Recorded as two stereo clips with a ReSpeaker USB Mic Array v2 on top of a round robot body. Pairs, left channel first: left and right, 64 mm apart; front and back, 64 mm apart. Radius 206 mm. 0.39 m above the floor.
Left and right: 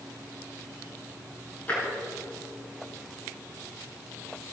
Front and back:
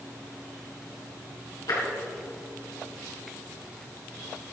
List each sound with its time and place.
1.7 s tapping: 25° left, 6 m